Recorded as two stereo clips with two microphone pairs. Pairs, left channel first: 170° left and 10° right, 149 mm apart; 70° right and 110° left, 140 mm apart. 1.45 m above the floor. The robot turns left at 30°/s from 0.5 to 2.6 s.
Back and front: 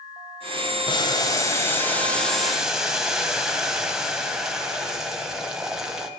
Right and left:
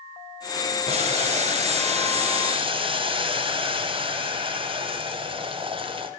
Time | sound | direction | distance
0.9 | boiling | 125° left | 1.8 m